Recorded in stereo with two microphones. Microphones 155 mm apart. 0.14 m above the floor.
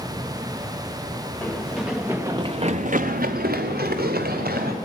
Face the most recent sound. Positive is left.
turn(degrees=-70)  # may be behind; listen again after turning